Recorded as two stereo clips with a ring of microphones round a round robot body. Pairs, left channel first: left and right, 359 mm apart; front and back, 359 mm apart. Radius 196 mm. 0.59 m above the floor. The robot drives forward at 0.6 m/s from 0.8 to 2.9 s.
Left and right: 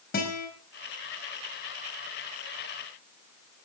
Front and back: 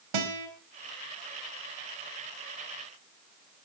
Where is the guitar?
160° left, 4 m.